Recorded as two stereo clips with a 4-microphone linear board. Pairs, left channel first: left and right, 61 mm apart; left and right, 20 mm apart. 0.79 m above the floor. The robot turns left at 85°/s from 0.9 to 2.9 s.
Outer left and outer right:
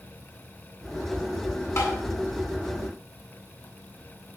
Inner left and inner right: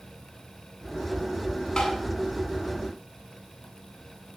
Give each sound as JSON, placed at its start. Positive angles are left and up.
{"t": 1.8, "sound": "tapping", "side_deg": 50, "distance_m": 9.0}